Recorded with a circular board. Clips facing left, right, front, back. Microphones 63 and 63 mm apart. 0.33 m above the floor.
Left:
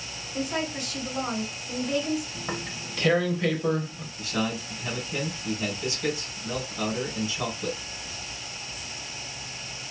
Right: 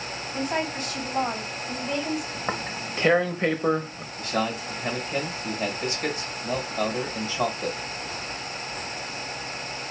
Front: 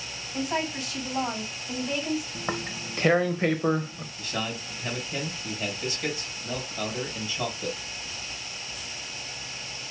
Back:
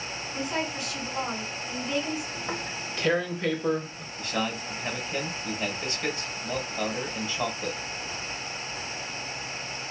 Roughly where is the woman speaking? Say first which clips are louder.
Right 2 dB, front 2 dB; ahead right.